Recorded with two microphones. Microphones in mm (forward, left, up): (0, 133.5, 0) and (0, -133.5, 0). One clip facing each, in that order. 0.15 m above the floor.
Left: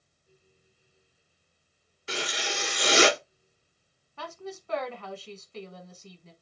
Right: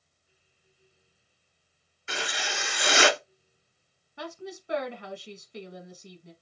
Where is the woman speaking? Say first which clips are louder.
Right 1 dB; 15° right (ahead or behind), 1.1 m.